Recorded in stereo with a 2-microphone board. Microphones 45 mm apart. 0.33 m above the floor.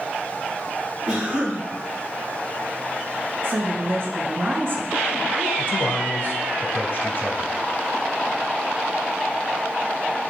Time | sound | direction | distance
1.1 | a cough | 10° right (ahead or behind) | 3 m
3.4 | a woman speaking | 50° right (ahead or behind) | 2 m
5.6 | a man speaking | 45° left (ahead or behind) | 1.3 m